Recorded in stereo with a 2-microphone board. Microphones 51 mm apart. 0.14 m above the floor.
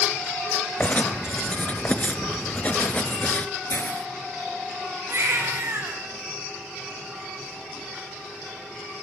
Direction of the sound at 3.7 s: 45° left (ahead or behind).